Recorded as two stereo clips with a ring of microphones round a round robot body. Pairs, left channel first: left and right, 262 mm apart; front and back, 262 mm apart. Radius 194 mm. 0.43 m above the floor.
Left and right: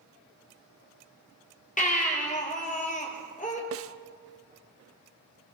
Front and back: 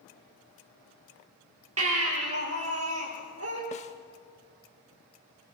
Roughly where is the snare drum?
Ahead right.